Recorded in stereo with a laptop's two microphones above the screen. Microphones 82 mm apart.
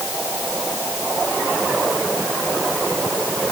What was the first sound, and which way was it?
Only background noise.